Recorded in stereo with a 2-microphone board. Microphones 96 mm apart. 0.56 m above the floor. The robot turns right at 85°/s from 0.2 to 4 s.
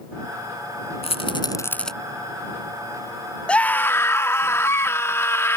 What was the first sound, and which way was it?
A rattle, 75° left (ahead or behind).